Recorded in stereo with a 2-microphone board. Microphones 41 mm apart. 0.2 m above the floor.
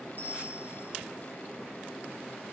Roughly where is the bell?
Right.